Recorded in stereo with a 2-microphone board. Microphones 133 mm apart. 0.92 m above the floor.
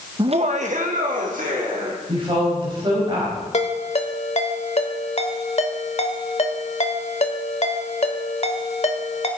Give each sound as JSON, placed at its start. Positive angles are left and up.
{"t": 0.2, "sound": "laughter", "side_deg": -35, "distance_m": 0.6}
{"t": 2.1, "sound": "a woman speaking", "side_deg": -40, "distance_m": 5.0}
{"t": 3.5, "sound": "a ringtone", "side_deg": 55, "distance_m": 1.3}